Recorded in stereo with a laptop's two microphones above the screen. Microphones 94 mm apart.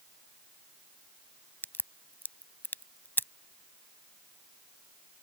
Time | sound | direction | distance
1.6 | a crack | 20° left (ahead or behind) | ?